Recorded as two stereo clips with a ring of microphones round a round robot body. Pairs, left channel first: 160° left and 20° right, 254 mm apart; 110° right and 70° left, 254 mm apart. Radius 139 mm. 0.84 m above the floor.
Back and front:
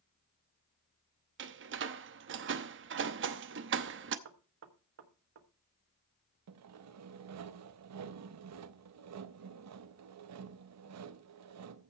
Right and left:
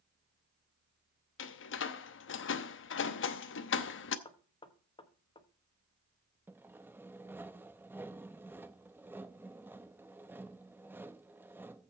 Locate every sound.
1.4 s a door slam: 70° right, 0.8 m
4.2 s knocking: 45° right, 1.2 m
6.5 s sawing: 15° right, 0.7 m